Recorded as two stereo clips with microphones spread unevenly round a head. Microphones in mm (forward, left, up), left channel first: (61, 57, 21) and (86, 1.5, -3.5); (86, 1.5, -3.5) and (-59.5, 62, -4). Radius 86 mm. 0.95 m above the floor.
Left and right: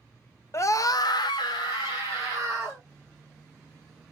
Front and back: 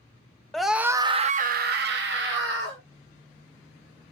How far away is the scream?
About 0.8 m.